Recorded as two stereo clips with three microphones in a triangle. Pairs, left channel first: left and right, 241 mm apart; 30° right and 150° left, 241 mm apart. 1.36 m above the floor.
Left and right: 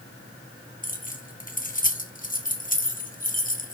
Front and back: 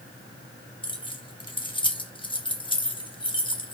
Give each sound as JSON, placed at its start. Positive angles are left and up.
{"t": 0.8, "sound": "keys jangling", "azimuth_deg": 35, "distance_m": 1.0}